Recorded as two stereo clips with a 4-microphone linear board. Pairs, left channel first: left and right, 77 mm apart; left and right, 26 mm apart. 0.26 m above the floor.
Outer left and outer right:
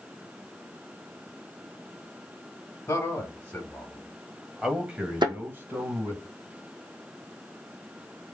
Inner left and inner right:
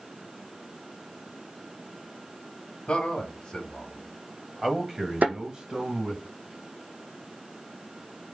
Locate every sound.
2.9 s a man speaking: 35° left (ahead or behind), 1.5 m; by 6.2 s 40° right (ahead or behind), 1.7 m
5.2 s a thud: 85° right, 1.4 m